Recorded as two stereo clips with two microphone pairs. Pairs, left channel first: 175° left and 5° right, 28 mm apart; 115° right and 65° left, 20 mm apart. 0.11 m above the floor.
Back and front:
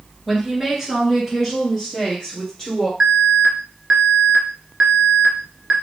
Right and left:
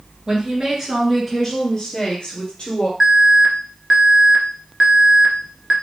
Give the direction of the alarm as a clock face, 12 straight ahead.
12 o'clock.